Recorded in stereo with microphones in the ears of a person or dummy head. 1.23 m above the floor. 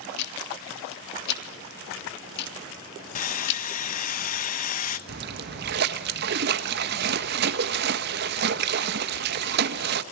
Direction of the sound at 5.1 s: 60° right (ahead or behind).